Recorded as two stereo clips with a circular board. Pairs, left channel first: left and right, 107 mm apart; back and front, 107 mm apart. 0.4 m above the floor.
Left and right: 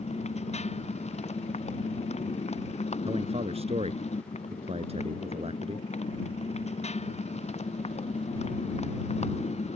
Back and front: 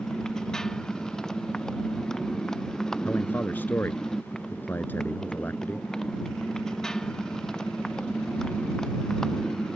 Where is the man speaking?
105° right.